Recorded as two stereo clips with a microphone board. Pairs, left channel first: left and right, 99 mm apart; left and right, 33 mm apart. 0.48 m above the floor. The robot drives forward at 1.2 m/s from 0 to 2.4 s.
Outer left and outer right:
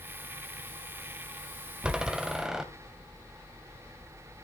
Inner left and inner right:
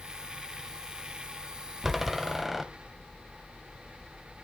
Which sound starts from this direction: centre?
A door slam, at 1.8 s.